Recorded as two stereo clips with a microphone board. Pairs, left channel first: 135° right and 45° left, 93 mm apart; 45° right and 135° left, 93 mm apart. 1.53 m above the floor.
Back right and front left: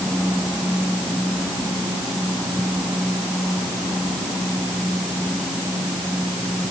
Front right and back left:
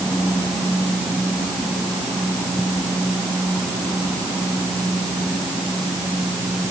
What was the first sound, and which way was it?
Only background noise.